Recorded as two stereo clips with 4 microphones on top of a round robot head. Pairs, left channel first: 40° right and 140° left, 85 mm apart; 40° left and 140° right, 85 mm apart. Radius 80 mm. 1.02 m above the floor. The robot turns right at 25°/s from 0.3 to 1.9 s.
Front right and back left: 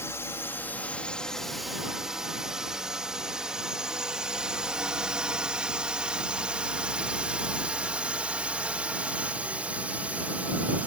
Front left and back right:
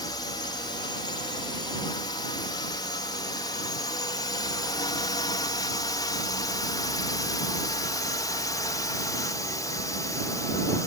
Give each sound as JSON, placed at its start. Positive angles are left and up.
{"t": 0.0, "sound": "a drone", "azimuth_deg": 15}